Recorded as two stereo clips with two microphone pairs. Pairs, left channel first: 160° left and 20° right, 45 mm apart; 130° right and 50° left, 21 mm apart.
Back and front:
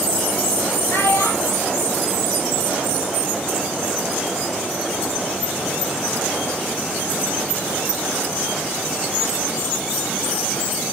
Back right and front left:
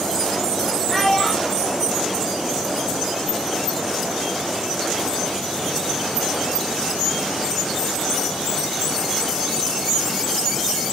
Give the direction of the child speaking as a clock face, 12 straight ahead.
7 o'clock.